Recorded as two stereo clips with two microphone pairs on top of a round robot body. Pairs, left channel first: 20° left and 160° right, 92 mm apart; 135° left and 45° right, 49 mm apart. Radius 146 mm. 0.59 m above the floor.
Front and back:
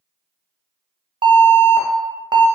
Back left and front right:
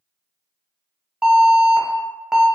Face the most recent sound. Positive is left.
turn(degrees=-125)